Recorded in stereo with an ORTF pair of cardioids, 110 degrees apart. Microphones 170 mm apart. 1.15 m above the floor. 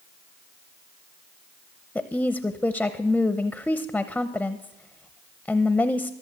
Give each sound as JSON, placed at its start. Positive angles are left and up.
{"t": 1.9, "sound": "a woman speaking", "azimuth_deg": 5, "distance_m": 0.7}